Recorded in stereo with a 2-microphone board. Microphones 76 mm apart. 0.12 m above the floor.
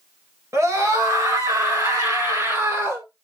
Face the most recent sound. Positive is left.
turn(degrees=-35)  # may be behind; listen again after turning